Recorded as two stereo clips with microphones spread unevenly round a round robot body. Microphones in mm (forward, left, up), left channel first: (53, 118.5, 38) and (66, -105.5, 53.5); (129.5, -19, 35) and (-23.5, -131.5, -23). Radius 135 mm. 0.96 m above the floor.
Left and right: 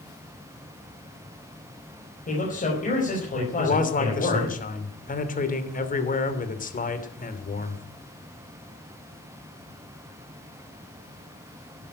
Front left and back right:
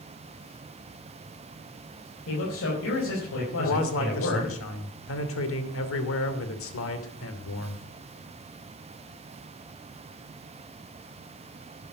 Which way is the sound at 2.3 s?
40° left.